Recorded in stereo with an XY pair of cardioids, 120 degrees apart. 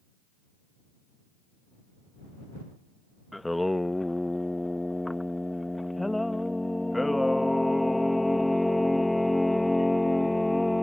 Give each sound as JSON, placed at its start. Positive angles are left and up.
{"t": 3.3, "sound": "singing", "azimuth_deg": 5}